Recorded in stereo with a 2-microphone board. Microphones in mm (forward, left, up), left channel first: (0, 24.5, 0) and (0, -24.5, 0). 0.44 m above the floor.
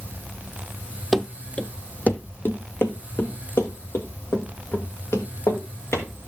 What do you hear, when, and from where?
1.1 s running footsteps: 5° left (ahead or behind), 0.6 m; by 6.1 s 70° left (ahead or behind), 2.5 m